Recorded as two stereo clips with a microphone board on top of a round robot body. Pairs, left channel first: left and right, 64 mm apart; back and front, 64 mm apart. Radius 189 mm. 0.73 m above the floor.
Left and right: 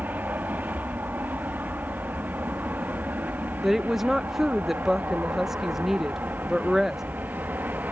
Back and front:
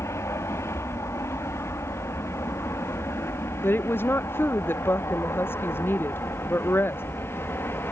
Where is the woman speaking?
175° right.